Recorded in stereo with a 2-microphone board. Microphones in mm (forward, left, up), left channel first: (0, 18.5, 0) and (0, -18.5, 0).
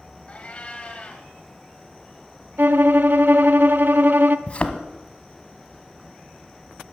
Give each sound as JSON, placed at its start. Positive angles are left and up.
{"t": 0.3, "sound": "a cat meowing", "side_deg": 30, "distance_m": 2.0}
{"t": 2.6, "sound": "a violin", "side_deg": -60, "distance_m": 0.6}
{"t": 4.5, "sound": "a thud", "side_deg": 35, "distance_m": 1.1}